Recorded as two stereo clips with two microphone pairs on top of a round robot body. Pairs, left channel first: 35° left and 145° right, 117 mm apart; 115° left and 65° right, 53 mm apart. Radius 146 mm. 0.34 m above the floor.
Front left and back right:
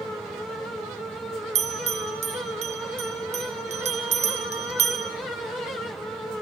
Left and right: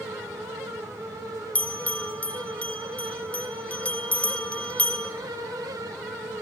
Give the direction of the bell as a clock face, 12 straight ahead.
6 o'clock.